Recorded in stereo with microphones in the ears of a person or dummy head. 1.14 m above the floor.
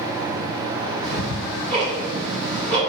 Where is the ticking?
65° right (ahead or behind), 1.8 m.